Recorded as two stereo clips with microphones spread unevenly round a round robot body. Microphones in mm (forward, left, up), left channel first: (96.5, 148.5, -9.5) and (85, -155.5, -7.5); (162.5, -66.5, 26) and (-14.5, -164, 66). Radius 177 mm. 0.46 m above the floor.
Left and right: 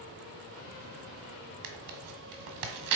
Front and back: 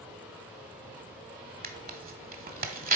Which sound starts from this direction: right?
Tearing paper, at 1.6 s.